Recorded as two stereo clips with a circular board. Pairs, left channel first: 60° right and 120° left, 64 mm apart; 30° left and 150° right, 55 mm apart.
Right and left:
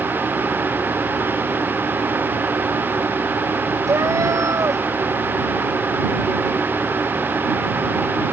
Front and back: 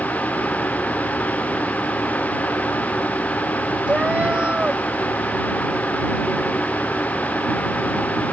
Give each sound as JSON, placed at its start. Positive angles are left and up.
{"t": 3.9, "sound": "a cat meowing", "azimuth_deg": 145}